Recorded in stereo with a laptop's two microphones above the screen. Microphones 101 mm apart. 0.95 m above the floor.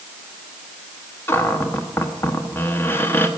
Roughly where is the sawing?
No sawing in this recording.